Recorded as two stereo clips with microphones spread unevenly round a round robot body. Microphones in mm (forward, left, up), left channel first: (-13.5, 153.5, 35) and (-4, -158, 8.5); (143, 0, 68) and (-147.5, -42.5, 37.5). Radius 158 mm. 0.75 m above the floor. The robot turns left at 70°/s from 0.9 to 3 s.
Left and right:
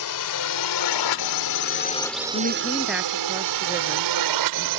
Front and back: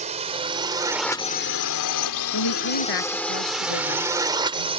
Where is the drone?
120° left; by 4.8 s 100° right.